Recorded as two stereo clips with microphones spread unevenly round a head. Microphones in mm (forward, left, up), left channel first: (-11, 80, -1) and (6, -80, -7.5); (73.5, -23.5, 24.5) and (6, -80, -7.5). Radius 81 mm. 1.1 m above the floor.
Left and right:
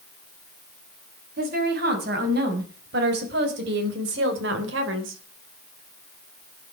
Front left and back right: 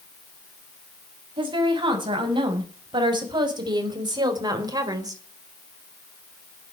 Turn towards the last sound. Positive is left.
turn(degrees=-90)